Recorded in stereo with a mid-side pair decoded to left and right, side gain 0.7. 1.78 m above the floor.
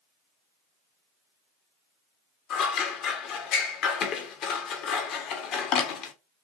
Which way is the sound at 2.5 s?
55° left.